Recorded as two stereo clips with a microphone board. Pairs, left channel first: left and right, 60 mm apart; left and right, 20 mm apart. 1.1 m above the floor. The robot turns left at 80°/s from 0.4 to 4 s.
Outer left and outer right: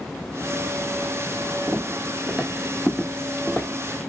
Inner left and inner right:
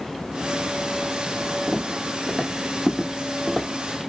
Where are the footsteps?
10° left (ahead or behind), 1.2 m; by 3.7 s 20° left (ahead or behind), 1.1 m.